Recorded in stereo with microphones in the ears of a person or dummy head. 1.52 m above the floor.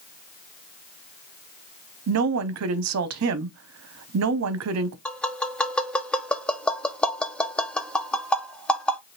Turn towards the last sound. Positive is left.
turn(degrees=5)  # may be behind; listen again after turning